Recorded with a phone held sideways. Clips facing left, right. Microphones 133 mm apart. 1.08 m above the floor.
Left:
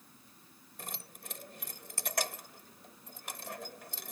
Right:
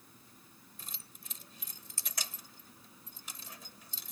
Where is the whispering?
No whispering in this recording.